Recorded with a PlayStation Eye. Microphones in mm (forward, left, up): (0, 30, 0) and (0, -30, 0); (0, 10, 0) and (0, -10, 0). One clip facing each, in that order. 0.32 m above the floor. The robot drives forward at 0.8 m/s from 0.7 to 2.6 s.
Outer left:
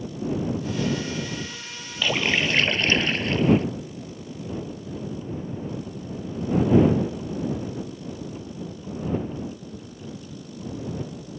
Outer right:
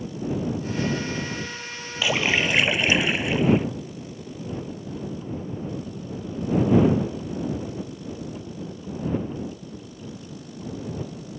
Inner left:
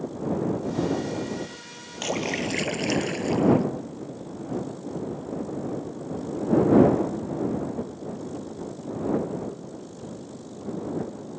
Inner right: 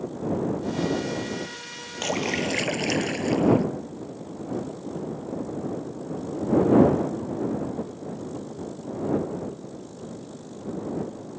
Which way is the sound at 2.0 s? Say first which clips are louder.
Outer right 1 dB, inner right 1 dB; 10° right (ahead or behind).